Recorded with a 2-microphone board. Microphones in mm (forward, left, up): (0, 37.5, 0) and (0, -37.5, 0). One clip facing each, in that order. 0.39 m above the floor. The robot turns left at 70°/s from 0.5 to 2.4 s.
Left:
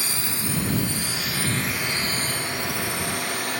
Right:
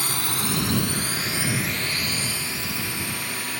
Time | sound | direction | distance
0.0 | a drone | 55° right (ahead or behind) | ?